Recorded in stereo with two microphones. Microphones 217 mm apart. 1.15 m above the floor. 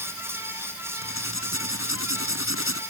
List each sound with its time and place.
1.0 s writing: 70° left (ahead or behind)